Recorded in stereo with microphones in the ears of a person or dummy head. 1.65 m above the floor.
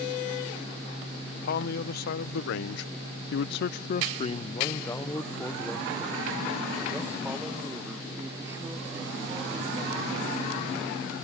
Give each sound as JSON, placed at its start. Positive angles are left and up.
{"t": 1.4, "sound": "a man speaking", "side_deg": 55}